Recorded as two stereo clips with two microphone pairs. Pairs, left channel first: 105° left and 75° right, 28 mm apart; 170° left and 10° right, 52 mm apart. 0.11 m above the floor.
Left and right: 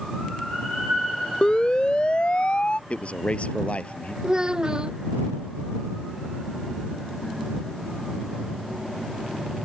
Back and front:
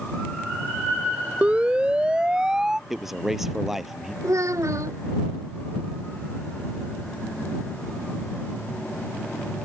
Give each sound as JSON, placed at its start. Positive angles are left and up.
{"t": 1.4, "sound": "a siren", "azimuth_deg": 55}
{"t": 2.9, "sound": "a man speaking", "azimuth_deg": 70}
{"t": 4.2, "sound": "a child speaking", "azimuth_deg": -15}